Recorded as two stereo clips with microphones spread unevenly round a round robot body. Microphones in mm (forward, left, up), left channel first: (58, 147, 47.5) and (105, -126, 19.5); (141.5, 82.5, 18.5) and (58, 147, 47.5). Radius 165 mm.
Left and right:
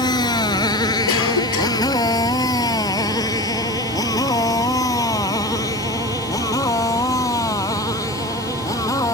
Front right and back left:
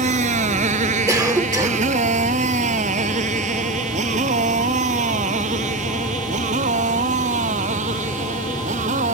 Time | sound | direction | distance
0.0 | a motorcycle | straight behind | ?
1.1 | a cough | 80° left | ?